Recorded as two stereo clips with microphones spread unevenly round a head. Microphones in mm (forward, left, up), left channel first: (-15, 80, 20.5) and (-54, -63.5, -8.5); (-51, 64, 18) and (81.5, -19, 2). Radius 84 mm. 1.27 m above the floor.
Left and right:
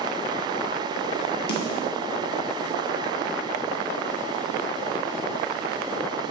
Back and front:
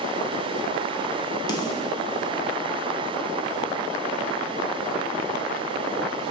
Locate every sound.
1.5 s a snare drum: 85° left, 1.0 m